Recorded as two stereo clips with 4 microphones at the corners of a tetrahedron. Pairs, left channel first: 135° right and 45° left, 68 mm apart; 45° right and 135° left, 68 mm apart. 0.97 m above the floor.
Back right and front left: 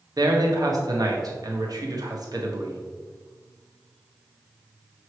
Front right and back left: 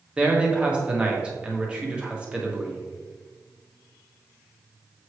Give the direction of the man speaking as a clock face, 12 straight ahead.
10 o'clock.